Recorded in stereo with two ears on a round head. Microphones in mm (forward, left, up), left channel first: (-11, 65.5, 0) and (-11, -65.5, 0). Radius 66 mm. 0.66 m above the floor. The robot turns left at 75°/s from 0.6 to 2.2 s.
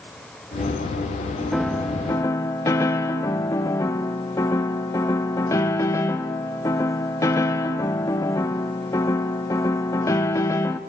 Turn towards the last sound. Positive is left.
turn(degrees=20)  # may be behind; listen again after turning